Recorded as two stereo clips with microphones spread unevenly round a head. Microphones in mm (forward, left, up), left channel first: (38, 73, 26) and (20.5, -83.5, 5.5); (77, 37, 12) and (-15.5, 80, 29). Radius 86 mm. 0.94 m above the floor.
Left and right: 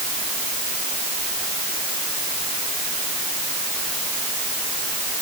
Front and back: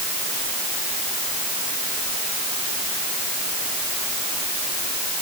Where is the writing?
I don't hear writing.